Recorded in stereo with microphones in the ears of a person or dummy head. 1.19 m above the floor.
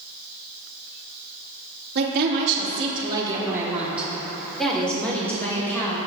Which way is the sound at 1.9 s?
60° right (ahead or behind).